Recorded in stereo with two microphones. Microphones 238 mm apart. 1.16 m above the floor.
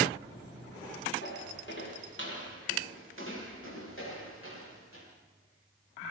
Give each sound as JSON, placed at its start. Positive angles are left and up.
{"t": 1.2, "sound": "footsteps", "side_deg": 50, "distance_m": 8.0}